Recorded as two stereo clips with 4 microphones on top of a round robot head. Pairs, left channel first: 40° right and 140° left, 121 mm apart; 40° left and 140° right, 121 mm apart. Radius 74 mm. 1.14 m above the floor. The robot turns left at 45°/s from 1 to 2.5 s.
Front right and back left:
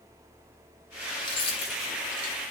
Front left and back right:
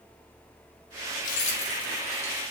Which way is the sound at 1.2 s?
15° left.